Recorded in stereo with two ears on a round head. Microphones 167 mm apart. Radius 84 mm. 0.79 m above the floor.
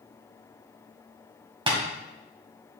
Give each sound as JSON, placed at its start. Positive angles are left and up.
{"t": 1.7, "sound": "tapping", "side_deg": -30, "distance_m": 2.0}